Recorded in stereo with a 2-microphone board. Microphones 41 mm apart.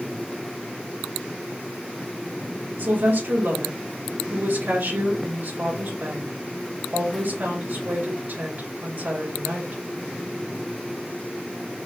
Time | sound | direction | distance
2.8 | a woman speaking | 65° right (ahead or behind) | 2.5 m